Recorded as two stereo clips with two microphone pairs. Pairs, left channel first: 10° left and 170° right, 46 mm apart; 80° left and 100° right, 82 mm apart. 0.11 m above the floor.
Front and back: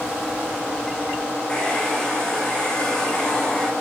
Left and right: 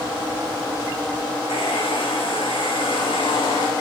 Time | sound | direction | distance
1.5 | a hair dryer | 80° left | 4 m